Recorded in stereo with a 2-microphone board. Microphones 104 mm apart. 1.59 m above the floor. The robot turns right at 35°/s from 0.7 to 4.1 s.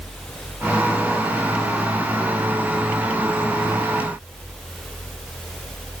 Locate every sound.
Only background noise.